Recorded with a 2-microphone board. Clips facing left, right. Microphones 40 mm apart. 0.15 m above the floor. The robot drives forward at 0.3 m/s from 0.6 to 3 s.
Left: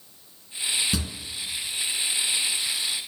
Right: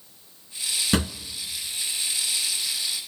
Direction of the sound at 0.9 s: 50° right (ahead or behind).